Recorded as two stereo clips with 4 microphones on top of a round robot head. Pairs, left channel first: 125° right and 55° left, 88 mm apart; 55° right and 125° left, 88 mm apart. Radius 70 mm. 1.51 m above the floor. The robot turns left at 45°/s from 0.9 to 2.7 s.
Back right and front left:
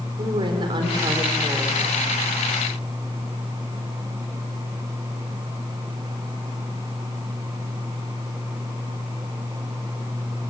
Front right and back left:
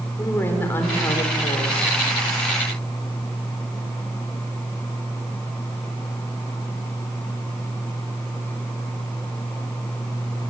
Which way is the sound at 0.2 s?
15° left.